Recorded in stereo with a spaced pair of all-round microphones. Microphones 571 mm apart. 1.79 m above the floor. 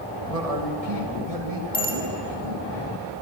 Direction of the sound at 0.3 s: 85° right.